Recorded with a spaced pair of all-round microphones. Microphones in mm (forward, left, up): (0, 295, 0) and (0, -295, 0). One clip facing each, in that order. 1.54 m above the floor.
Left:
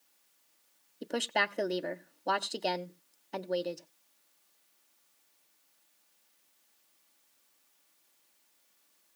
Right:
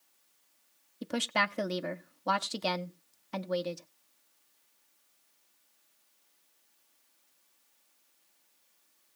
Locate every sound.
1.0 s a woman speaking: 30° right (ahead or behind), 0.7 m